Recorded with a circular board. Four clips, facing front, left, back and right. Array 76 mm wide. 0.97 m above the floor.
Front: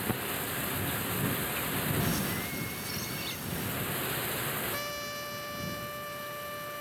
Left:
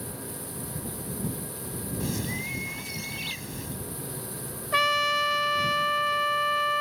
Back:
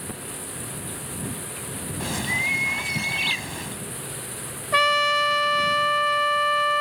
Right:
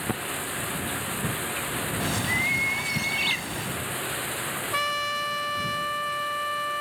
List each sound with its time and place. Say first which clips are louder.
0.0 s running water: right 8 dB, front 2 dB; 75° right
2.0 s a bird: right 5 dB, back 5 dB; 150° right
4.7 s a trumpet: left 5 dB, back 17 dB; 170° left